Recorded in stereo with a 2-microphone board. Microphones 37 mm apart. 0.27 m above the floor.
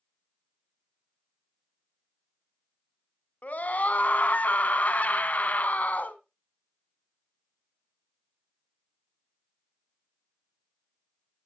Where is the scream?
50° left (ahead or behind), 1.9 m.